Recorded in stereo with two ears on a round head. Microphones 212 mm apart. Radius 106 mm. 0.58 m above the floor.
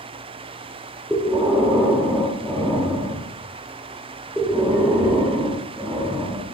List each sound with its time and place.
1.1 s breathing: 5° right (ahead or behind), 0.5 m